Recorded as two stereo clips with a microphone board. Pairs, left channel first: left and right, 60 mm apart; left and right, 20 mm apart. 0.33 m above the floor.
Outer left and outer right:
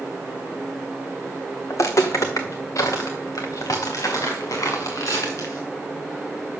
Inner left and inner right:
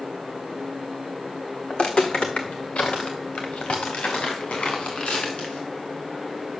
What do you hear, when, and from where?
1.7 s footsteps: 55° left (ahead or behind), 1.4 m; by 5.7 s 60° left (ahead or behind), 3.5 m